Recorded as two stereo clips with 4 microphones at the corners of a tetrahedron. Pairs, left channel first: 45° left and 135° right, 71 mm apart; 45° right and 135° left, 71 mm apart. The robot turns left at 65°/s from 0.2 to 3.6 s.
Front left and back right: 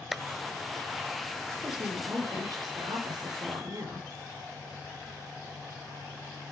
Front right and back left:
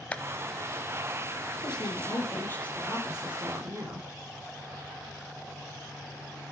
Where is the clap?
55° right, 1.1 m; by 0.2 s 60° right, 1.1 m.